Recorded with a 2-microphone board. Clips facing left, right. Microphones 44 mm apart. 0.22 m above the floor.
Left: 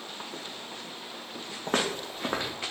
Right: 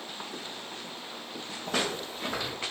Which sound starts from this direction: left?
Footsteps, at 1.7 s.